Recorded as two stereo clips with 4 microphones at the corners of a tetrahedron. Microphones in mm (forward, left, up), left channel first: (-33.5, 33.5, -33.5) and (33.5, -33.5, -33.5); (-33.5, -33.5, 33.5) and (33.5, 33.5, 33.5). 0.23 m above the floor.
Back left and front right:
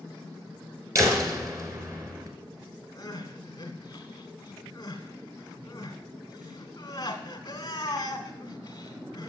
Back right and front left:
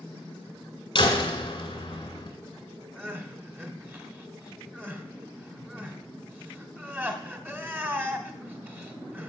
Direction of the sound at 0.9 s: 100° right.